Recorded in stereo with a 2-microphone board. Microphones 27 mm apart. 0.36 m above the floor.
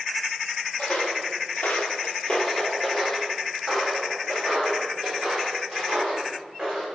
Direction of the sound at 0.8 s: 55° left (ahead or behind).